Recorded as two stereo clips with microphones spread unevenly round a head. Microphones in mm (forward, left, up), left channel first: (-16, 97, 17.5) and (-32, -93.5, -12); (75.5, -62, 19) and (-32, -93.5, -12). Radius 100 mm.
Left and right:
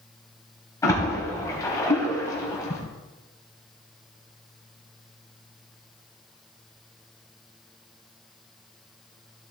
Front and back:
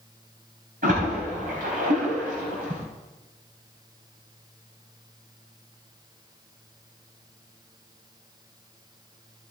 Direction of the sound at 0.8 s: 155° left.